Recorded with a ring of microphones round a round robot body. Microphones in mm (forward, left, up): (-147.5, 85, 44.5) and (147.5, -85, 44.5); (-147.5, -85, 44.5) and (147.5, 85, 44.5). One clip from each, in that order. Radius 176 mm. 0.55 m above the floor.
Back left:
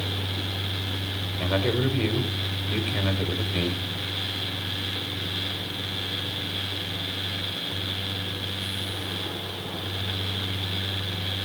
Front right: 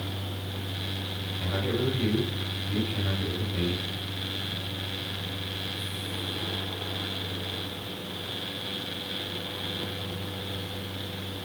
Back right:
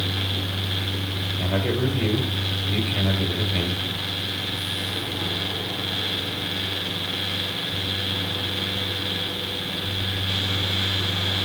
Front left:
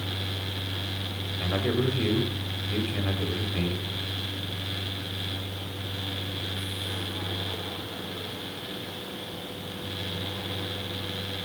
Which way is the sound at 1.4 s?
110° left.